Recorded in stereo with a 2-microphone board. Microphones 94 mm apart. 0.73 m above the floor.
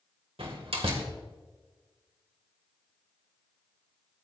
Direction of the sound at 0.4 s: 80° right.